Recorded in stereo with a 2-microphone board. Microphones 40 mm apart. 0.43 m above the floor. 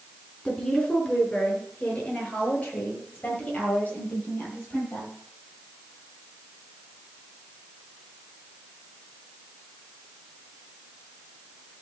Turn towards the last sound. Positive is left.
turn(degrees=40)  # may be behind; listen again after turning